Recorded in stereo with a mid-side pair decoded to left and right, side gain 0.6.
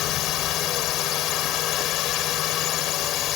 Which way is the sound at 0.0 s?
65° left.